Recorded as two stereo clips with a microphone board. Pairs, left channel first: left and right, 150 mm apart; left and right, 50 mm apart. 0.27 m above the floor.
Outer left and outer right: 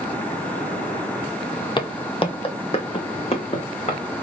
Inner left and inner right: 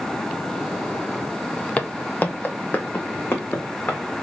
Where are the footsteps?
35° left (ahead or behind), 0.6 m; by 4.0 s 45° left (ahead or behind), 1.8 m.